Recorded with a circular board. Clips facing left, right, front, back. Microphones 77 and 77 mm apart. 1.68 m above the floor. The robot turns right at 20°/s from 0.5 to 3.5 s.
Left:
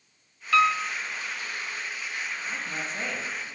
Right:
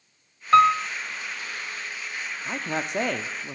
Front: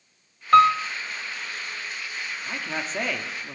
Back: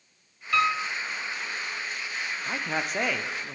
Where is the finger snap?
No finger snap in this recording.